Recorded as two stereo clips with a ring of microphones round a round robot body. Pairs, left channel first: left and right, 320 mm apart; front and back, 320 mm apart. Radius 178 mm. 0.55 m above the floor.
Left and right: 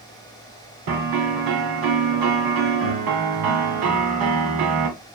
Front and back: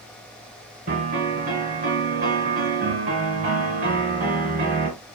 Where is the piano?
110° right, 1.4 m.